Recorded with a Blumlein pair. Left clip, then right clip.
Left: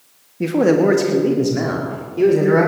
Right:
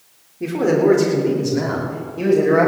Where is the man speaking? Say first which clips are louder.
Left 2 dB; 45° left, 1.5 m; by 2.7 s 35° left, 3.5 m.